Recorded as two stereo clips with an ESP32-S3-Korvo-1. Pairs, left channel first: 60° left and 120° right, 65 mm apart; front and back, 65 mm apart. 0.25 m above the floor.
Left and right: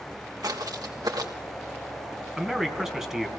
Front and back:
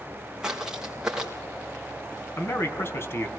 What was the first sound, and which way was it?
Footsteps, 100° right.